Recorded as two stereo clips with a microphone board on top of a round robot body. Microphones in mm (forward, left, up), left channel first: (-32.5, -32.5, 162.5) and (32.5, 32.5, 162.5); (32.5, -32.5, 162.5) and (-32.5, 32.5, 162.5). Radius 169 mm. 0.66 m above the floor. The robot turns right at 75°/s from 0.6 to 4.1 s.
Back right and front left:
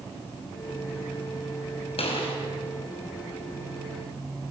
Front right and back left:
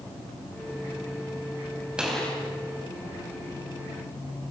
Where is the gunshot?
145° right, 4.5 m; by 2.3 s 120° right, 4.5 m.